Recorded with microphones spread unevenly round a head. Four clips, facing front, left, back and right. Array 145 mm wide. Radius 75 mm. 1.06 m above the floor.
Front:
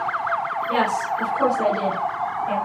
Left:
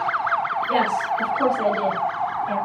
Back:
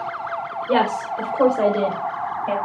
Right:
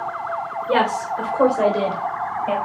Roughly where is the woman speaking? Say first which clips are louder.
Right 4 dB, back 3 dB; behind right.